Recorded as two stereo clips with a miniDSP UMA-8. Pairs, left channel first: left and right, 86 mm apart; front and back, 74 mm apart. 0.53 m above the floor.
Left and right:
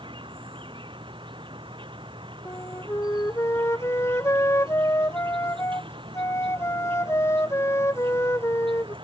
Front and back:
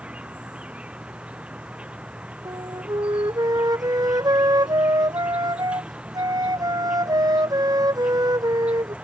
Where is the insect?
105° right.